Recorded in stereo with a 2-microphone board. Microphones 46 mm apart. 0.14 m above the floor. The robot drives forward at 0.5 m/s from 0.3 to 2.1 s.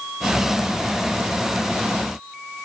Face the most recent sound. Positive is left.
No sound to turn to.